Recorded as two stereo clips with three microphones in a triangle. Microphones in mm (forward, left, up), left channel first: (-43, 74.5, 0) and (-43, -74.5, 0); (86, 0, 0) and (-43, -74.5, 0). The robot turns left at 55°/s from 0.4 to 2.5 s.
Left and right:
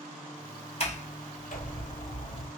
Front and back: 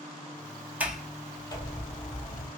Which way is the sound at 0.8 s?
130° left.